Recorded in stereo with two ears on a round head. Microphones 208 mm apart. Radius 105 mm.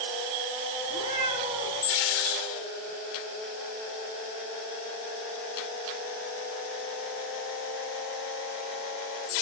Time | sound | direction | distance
0.8 | a cat meowing | 25° right (ahead or behind) | 8.5 m